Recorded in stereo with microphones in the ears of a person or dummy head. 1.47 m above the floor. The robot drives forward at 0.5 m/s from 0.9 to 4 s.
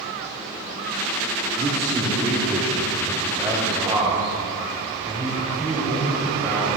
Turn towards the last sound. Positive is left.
turn(degrees=-20)  # may be behind; listen again after turning